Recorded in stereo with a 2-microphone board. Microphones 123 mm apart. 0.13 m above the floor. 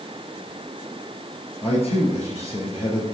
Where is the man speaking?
55° left (ahead or behind), 2.5 m.